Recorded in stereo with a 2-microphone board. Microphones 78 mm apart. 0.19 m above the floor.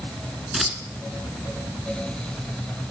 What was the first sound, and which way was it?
Scissors, centre (ahead or behind).